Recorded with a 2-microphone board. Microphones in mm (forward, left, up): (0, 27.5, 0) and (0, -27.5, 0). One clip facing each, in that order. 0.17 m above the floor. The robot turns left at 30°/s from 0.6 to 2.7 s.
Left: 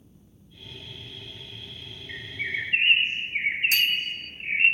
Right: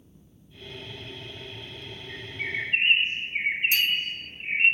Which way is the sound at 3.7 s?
70° left (ahead or behind).